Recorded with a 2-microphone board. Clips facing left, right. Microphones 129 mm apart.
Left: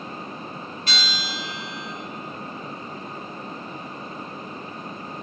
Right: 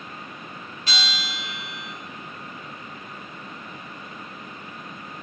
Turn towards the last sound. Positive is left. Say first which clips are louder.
# even
turn(degrees=50)  # may be behind; listen again after turning